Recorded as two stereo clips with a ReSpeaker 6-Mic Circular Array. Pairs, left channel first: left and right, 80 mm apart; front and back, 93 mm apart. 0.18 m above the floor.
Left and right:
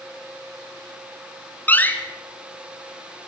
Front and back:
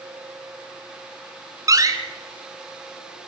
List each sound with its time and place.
1.7 s a door slam: 150° left, 1.5 m